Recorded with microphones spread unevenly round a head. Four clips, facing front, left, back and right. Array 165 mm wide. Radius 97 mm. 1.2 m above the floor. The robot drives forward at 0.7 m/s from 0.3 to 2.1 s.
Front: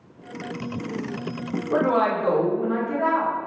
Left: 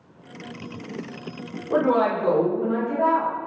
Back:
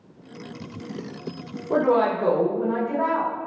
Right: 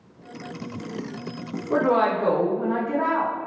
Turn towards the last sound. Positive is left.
turn(degrees=175)